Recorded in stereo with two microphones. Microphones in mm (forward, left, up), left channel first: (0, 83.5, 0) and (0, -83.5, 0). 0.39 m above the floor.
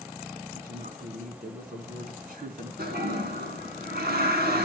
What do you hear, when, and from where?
0.5 s a woman speaking: 60° right (ahead or behind), 4 m
2.8 s a toilet flushing: 70° right (ahead or behind), 3.5 m